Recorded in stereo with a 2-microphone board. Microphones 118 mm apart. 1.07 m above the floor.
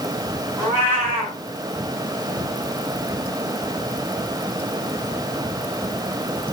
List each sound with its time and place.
0.6 s a cat meowing: 15° right (ahead or behind), 4 m